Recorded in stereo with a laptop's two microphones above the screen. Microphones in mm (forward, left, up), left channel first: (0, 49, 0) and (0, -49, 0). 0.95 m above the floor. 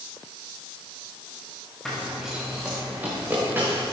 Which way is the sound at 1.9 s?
5° left (ahead or behind).